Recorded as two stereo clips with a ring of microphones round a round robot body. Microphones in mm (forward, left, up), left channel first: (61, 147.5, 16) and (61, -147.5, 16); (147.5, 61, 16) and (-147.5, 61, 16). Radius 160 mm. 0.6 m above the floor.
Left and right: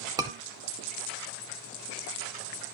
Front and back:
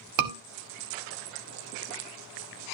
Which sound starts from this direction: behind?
A scream, at 0.2 s.